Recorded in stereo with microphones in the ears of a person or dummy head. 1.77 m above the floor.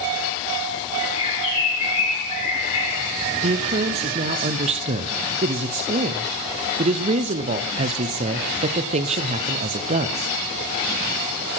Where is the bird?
35° left (ahead or behind), 5.5 m.